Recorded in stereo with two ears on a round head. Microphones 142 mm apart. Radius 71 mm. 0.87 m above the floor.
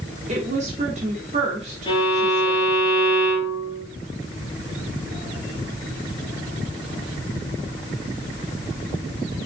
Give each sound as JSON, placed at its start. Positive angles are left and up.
{"t": 0.3, "sound": "a woman speaking", "side_deg": -40, "distance_m": 1.8}
{"t": 1.9, "sound": "a violin", "side_deg": 30, "distance_m": 2.5}